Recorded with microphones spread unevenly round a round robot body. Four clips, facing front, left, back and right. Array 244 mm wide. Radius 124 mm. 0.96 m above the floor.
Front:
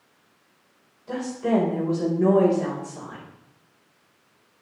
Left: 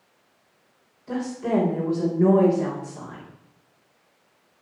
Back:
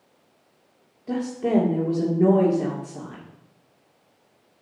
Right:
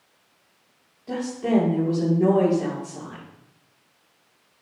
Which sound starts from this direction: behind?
A woman speaking, at 1.1 s.